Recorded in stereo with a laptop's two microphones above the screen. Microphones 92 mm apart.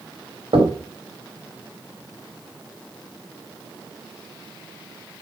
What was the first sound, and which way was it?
Knocking, 90° right.